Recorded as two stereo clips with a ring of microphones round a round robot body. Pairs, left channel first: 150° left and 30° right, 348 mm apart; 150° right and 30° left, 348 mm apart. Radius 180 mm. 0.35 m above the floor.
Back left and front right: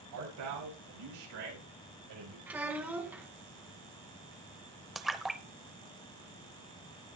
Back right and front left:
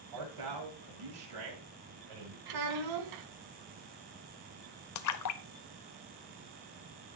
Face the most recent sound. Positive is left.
turn(degrees=-120)